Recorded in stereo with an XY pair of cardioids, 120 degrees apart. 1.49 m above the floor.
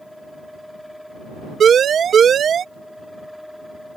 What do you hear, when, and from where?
0.0 s a fan: 5° left
1.6 s a siren: 45° right